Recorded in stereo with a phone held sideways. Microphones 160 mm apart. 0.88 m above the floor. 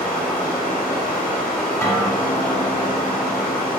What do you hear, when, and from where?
0.0 s running water: 75° left (ahead or behind), 1.8 m
1.8 s a guitar: 20° left (ahead or behind), 0.8 m